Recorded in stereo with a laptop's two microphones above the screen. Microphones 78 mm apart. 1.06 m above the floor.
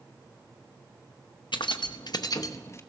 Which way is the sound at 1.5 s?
85° left.